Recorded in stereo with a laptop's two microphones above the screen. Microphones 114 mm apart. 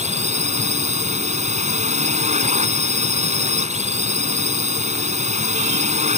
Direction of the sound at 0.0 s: 85° right.